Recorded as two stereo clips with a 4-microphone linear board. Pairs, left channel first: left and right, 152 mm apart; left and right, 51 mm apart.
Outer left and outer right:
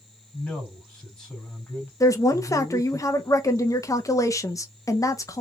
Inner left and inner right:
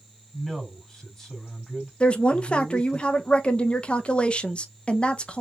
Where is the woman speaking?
20° left (ahead or behind), 0.8 m.